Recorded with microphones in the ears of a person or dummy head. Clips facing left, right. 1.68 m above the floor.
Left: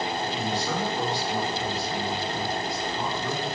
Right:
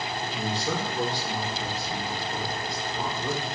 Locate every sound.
0.2 s a man speaking: 35° right (ahead or behind), 3 m